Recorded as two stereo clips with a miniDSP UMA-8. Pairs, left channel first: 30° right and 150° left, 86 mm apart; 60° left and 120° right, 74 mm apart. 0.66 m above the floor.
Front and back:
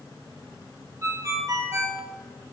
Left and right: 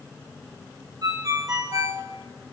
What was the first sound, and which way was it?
A ringtone, 155° right.